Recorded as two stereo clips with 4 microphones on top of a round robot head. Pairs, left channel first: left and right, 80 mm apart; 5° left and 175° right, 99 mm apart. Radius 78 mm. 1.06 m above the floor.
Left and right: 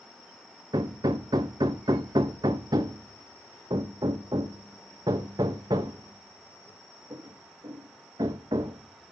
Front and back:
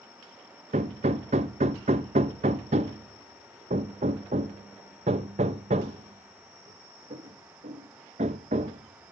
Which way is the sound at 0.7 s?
150° right.